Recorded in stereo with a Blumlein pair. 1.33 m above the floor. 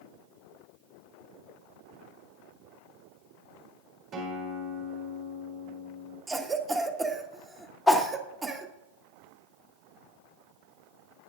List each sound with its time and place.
4.1 s a guitar: 30° right, 3 m
6.3 s a cough: 10° right, 1.1 m
7.9 s a whoosh: 5° left, 0.9 m